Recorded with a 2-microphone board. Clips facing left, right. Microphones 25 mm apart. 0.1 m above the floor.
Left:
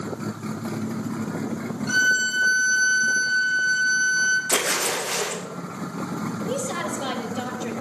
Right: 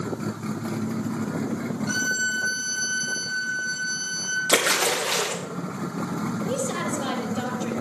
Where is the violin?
10° left (ahead or behind), 5 m.